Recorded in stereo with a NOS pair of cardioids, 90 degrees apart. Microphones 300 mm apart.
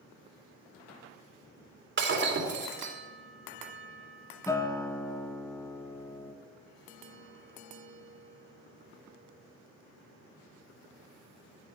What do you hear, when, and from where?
2.0 s breaking glass: 40° right, 2.5 m
4.5 s a guitar: 10° left, 1.0 m